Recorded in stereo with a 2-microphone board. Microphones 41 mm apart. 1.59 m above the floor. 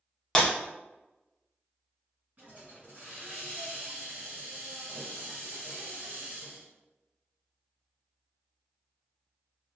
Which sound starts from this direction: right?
A hiss, at 2.4 s.